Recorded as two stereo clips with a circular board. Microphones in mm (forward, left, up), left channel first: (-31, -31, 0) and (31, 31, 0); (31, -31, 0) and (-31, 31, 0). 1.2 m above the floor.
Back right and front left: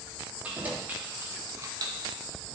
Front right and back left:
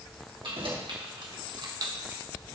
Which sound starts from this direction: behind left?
Keys jangling, at 0.4 s.